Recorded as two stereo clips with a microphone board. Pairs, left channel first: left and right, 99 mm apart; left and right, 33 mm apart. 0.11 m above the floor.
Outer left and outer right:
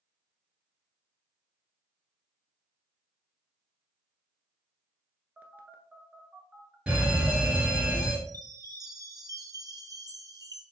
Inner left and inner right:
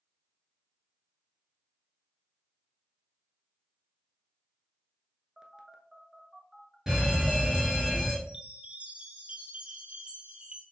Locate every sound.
5.4 s a phone buzzing: 20° right (ahead or behind), 0.8 m
6.9 s a fire alarm: 10° right (ahead or behind), 2.5 m
8.3 s a chime: 40° right (ahead or behind), 0.8 m